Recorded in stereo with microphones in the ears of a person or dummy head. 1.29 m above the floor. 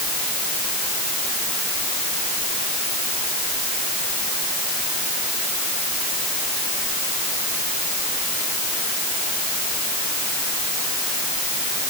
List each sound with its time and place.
Only background noise.